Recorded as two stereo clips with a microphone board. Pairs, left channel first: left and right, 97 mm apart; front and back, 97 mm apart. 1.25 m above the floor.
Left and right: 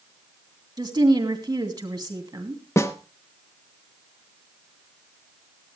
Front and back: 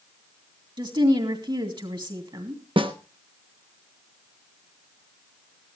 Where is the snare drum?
150° left, 1.0 m.